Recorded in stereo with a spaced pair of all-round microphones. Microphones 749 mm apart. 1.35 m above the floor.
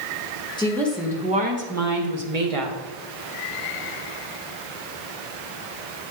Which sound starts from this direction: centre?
A woman speaking, at 0.6 s.